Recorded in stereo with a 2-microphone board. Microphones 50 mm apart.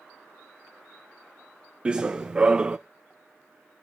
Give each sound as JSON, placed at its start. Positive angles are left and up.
{"t": 1.9, "sound": "running footsteps", "side_deg": -20, "distance_m": 0.6}